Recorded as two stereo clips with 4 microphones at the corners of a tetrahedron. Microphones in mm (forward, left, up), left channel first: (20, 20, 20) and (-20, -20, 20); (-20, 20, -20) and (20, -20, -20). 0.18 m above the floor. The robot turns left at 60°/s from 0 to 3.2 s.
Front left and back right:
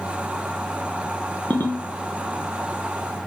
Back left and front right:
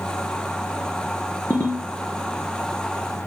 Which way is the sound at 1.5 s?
100° left.